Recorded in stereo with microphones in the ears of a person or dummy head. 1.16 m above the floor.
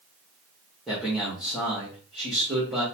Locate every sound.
0.9 s a man speaking: 10° left (ahead or behind), 1.9 m